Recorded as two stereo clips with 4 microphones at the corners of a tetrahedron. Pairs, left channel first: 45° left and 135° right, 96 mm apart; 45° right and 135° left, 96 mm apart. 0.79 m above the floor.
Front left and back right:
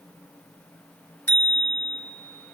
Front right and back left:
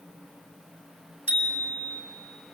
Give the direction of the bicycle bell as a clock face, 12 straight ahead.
1 o'clock.